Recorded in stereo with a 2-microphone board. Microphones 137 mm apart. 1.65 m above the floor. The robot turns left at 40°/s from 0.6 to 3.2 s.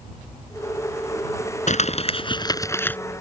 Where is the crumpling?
65° left; by 3.0 s 10° left.